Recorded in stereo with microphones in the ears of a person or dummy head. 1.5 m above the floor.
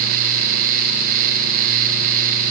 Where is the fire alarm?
No fire alarm in this recording.